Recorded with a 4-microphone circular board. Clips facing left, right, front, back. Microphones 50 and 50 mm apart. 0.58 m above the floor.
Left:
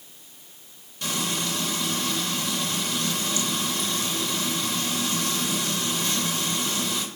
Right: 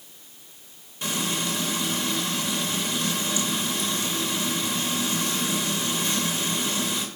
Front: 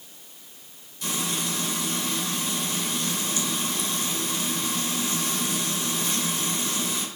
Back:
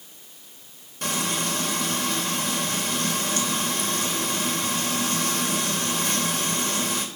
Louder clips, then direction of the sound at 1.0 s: Right 1 dB, back 3 dB; 155° right.